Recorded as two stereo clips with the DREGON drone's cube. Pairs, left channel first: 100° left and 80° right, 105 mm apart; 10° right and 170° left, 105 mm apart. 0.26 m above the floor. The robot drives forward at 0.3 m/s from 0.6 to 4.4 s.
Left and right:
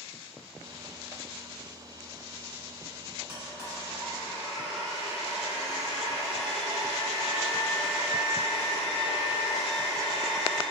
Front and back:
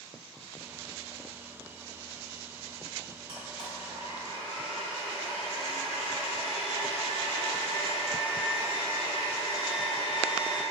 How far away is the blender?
About 1.3 m.